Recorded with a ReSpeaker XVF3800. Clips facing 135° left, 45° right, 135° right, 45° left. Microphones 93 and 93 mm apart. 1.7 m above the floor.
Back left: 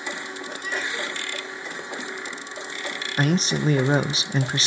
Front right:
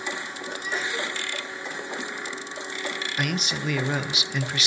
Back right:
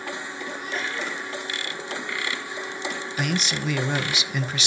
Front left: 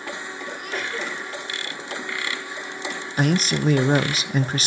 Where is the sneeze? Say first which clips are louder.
Even, front left 1 dB; 25° left, 7.5 m.